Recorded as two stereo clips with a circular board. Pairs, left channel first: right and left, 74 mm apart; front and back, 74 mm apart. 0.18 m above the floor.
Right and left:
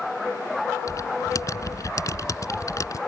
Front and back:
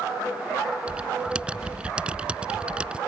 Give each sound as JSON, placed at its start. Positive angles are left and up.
{"t": 0.9, "sound": "typing on a keyboard", "azimuth_deg": -110}